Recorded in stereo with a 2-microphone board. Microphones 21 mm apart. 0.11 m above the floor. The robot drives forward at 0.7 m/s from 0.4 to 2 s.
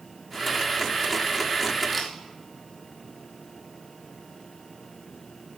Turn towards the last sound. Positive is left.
turn(degrees=0)  # may be behind; listen again after turning